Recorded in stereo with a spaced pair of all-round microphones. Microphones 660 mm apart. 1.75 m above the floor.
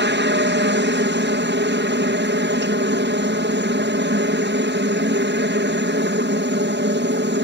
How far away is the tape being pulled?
I don't hear tape being pulled.